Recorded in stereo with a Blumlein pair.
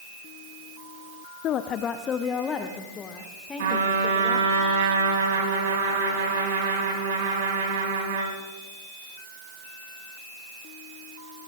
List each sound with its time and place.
1.4 s a woman speaking: 35° left, 0.6 m; by 4.6 s 15° left, 2.5 m
3.6 s a trumpet: 55° right, 5 m